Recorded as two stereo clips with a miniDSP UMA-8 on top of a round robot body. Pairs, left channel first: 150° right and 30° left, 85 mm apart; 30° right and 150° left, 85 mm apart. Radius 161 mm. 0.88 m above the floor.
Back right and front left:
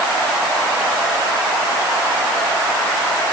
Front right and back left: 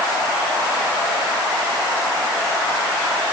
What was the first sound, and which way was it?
Only background noise.